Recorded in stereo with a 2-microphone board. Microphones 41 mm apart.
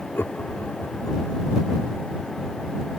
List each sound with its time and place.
0.1 s laughter: 65° left (ahead or behind); by 1.5 s 55° left (ahead or behind)